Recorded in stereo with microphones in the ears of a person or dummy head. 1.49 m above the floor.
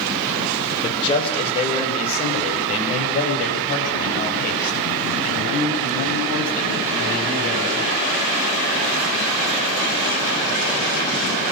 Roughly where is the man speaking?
Left.